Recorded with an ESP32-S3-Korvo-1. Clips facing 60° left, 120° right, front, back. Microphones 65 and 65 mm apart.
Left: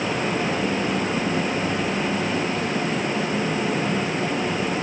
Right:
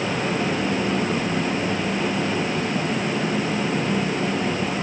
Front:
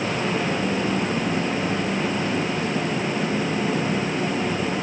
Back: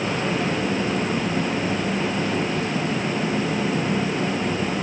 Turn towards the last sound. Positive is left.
No sound to turn to.